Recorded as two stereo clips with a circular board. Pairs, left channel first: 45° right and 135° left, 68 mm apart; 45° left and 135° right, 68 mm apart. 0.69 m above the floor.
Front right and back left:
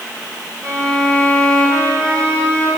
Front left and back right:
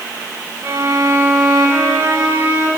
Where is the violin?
175° left, 5.5 m.